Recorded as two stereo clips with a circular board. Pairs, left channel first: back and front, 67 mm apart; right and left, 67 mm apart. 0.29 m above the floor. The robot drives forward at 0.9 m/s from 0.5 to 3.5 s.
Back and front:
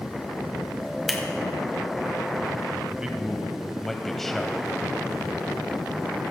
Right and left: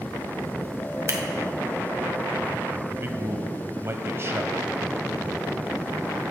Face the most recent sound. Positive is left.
turn(degrees=100)